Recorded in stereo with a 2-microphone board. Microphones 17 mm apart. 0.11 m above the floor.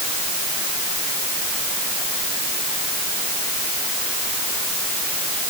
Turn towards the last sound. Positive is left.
No sound to turn to.